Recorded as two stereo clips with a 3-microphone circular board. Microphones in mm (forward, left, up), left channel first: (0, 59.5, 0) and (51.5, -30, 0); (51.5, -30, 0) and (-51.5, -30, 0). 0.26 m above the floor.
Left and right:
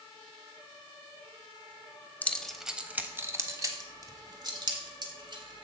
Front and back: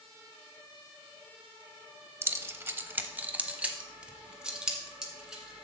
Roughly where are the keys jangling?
Behind.